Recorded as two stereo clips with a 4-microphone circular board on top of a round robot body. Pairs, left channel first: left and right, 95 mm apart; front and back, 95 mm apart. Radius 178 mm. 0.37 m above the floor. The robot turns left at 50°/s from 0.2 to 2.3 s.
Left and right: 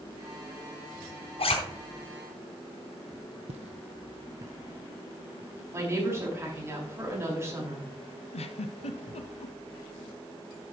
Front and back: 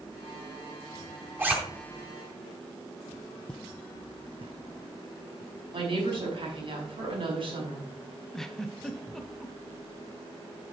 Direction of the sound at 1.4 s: 110° left.